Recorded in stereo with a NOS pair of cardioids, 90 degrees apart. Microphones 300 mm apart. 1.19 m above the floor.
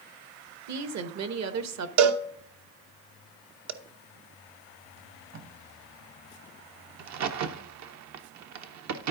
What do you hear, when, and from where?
0.7 s a woman speaking: 60° right, 1.1 m
2.0 s a cowbell: 60° right, 0.7 m
5.0 s tape being pulled: 60° right, 1.7 m
7.0 s a crack: 60° right, 0.8 m